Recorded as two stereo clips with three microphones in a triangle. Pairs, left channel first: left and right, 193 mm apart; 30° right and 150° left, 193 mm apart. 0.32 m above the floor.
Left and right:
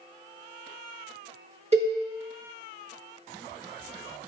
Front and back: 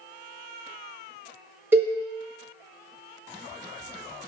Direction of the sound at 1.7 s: 135° right.